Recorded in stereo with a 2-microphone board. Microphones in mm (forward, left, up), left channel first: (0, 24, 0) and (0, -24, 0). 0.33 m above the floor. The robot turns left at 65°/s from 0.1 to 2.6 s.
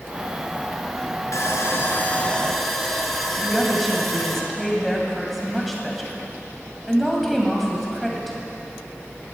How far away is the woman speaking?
About 2 m.